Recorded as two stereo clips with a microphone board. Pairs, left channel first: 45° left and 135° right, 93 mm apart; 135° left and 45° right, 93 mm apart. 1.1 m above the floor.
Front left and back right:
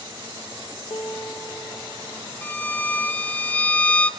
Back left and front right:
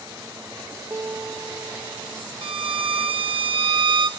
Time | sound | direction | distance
0.9 | a piano | 10° left | 1.1 m
2.4 | a violin | 25° right | 0.8 m